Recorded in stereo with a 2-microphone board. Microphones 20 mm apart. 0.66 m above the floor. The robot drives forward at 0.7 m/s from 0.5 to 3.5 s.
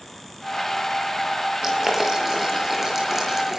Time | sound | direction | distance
1.6 | boiling | 15° right (ahead or behind) | 7.5 m